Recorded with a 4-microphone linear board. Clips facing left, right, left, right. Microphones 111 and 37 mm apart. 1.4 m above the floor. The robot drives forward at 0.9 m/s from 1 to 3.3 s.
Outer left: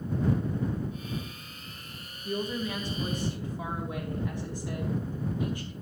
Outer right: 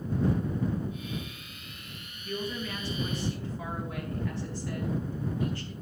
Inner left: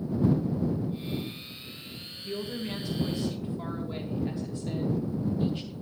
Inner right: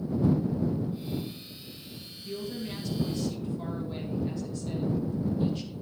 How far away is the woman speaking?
About 2.5 m.